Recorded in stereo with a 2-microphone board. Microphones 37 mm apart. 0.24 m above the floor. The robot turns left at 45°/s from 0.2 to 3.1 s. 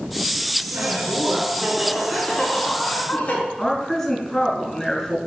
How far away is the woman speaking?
About 2 m.